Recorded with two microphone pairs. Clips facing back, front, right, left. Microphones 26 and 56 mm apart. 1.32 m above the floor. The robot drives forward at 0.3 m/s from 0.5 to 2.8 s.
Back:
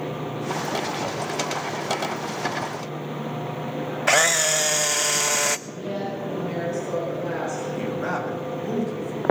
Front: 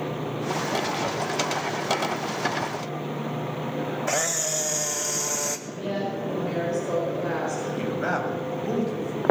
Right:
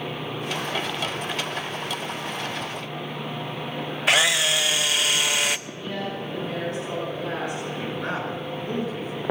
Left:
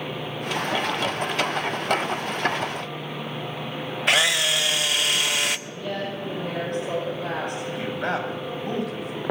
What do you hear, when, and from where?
4.1 s a camera shutter: straight behind, 0.5 m
5.7 s a woman speaking: 55° left, 5 m
7.8 s a man speaking: 65° left, 6.5 m